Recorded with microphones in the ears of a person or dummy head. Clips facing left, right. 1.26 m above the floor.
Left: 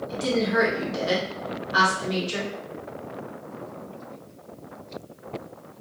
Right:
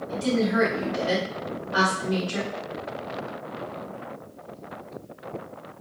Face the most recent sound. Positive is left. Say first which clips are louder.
# right 1 dB
turn(degrees=30)  # may be behind; listen again after turning